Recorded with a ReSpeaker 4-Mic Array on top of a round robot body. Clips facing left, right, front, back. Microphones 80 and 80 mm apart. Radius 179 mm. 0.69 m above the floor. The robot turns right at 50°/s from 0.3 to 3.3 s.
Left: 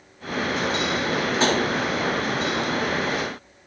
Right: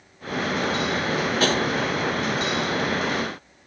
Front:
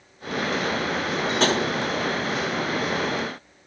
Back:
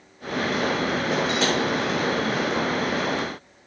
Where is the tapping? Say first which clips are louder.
Left 1 dB, front 6 dB; 25° left, 3 m; by 1.6 s 35° left, 3 m.